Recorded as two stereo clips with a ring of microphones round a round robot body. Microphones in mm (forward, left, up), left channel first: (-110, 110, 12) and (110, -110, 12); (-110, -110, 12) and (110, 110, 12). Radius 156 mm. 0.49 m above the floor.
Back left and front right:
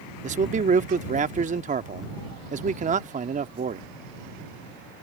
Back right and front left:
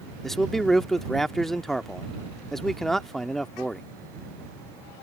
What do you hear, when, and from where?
0.2 s a man speaking: 50° right